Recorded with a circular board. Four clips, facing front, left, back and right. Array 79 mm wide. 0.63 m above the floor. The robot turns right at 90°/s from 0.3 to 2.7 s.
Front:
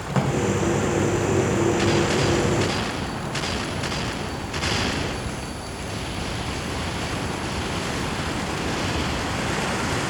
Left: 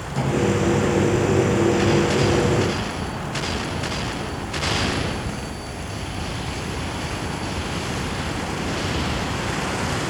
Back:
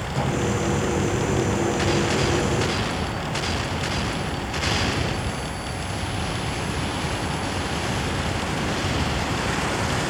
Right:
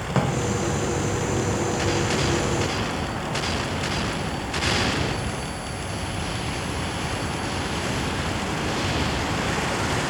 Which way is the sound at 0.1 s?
60° right.